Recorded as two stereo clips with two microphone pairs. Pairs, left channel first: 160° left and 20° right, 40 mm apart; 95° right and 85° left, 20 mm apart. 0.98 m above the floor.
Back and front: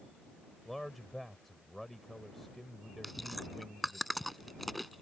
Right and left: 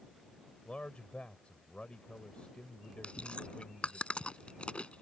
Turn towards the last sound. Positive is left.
turn(degrees=-110)